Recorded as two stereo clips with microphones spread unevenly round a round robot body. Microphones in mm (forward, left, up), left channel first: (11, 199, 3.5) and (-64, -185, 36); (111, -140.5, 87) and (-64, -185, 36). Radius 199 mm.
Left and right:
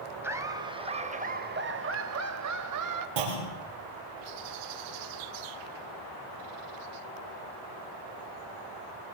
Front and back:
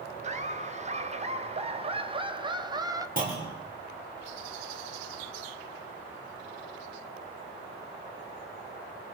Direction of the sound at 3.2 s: 125° right.